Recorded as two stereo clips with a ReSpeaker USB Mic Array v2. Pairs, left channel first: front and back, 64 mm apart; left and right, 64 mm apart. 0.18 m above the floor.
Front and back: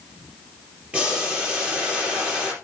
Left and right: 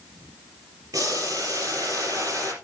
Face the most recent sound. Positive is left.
turn(degrees=-110)